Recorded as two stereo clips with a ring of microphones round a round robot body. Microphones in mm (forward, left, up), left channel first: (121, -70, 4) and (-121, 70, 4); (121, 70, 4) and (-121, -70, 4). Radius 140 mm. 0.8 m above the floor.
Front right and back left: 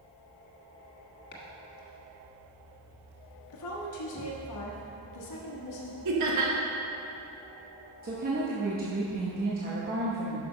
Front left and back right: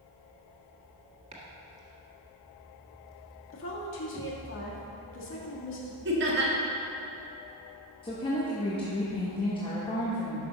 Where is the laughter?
160° left, 1.4 m.